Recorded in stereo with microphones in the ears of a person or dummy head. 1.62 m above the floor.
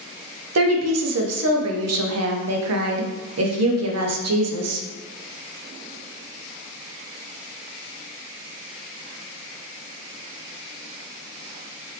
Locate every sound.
0.6 s a woman speaking: 80° right, 0.7 m